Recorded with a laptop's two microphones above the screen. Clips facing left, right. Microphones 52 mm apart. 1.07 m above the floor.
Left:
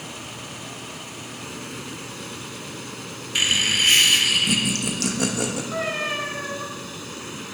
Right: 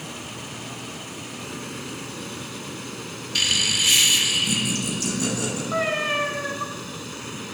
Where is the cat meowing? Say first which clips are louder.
Right 6 dB; 20° right (ahead or behind), 1.9 m.